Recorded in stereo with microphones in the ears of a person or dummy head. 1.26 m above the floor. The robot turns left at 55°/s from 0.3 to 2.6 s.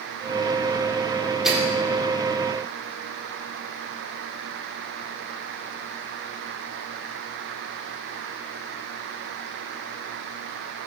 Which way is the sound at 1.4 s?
Centre (ahead or behind).